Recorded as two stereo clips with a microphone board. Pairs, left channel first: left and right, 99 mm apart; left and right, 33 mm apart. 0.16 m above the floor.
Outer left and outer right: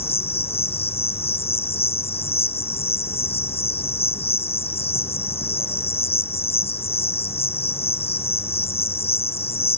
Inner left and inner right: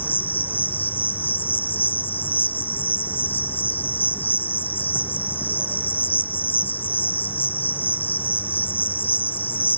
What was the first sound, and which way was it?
An insect, 80° left.